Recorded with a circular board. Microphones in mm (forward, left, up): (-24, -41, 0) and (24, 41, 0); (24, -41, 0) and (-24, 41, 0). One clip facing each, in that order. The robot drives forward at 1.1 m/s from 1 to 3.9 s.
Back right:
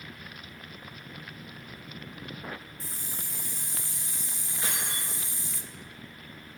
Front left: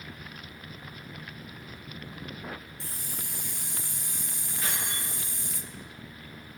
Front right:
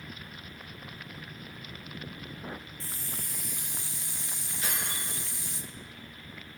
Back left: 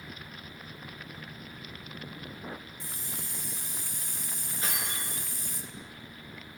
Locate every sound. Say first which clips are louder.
2.8 s a hiss: front left 1 dB, even; 45° left, 2 m; by 5.6 s 85° left, 1.5 m
4.6 s keys jangling: even, even; 170° left, 5 m